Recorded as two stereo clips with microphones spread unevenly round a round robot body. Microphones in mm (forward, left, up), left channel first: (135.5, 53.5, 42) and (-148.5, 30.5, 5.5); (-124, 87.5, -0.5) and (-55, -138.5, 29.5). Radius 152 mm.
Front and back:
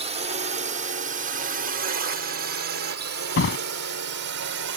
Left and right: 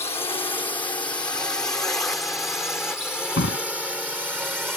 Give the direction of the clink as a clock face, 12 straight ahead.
No clink in this recording.